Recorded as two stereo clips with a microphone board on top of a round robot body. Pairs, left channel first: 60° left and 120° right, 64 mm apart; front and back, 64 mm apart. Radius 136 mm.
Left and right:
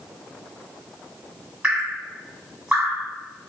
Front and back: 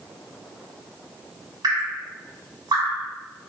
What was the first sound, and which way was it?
Dripping, 170° left.